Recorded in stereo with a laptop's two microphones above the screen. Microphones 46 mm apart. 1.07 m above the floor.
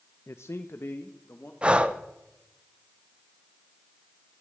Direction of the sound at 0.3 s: 70° left (ahead or behind).